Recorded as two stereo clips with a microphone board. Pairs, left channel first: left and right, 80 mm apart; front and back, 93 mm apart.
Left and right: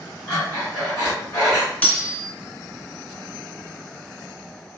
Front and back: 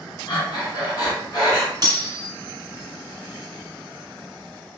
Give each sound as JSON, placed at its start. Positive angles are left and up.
{"t": 0.3, "sound": "breathing", "azimuth_deg": 40, "distance_m": 1.7}
{"t": 1.8, "sound": "cutlery clinking", "azimuth_deg": 160, "distance_m": 1.2}